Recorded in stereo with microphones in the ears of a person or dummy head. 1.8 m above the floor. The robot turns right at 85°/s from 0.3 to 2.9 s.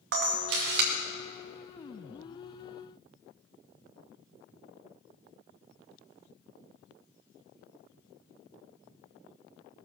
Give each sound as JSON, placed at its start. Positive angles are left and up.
{"t": 0.1, "sound": "a camera shutter", "azimuth_deg": -110, "distance_m": 2.0}